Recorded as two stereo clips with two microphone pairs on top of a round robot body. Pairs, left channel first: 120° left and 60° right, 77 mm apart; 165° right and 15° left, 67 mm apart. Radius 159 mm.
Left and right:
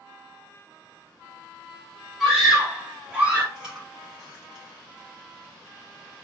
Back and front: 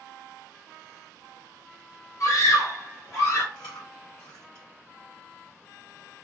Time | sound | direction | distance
2.2 | a scream | 150° right | 2 m
3.5 | chewing | 145° right | 2.0 m